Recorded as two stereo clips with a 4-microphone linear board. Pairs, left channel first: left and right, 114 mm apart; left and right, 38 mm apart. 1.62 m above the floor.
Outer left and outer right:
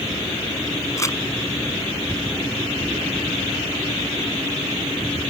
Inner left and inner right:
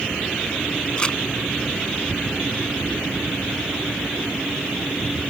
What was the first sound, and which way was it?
Crumpling, 25° left (ahead or behind).